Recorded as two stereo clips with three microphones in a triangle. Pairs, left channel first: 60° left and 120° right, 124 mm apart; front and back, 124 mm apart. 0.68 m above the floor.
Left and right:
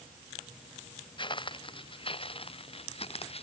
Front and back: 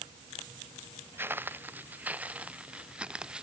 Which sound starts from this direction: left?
Footsteps, at 1.2 s.